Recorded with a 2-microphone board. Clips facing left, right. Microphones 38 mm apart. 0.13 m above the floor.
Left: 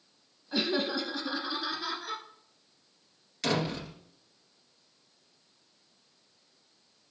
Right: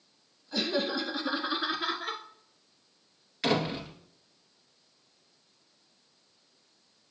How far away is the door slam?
About 2 m.